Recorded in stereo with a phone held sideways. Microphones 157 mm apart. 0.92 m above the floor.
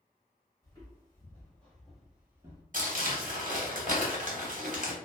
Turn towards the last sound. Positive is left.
turn(degrees=-55)  # may be behind; listen again after turning